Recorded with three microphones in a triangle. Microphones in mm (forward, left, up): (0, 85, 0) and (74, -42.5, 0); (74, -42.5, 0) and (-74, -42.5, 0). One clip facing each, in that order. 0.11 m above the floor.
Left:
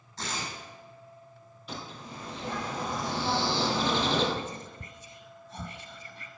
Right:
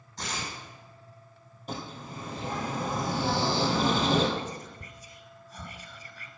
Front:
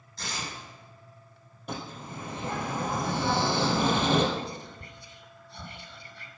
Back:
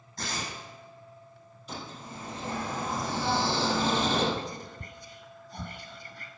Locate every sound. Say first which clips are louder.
0.2 s tearing paper: even, back 2 dB; 140° right, 5.5 m
1.7 s a bird: right 3 dB, front 3 dB; 20° right, 3 m
4.3 s whispering: right 1 dB, front 1 dB; 165° left, 1.5 m